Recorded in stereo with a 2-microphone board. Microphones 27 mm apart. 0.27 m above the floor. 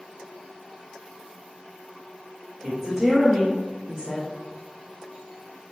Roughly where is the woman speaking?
Centre.